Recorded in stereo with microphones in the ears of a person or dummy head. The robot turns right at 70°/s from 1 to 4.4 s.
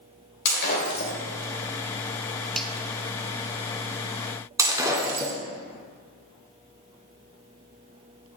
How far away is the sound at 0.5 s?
About 3 m.